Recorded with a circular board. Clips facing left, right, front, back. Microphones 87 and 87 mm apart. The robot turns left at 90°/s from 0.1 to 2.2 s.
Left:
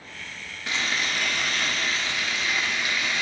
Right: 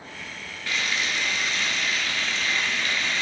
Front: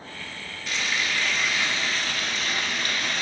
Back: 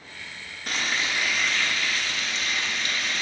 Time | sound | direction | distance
0.7 | frying | 155° left | 1.0 m